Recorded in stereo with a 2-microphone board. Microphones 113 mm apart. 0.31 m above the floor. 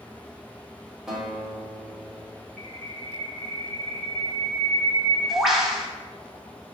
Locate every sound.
1.1 s a guitar: 5° right (ahead or behind), 1.0 m
2.6 s a bird: centre (ahead or behind), 0.6 m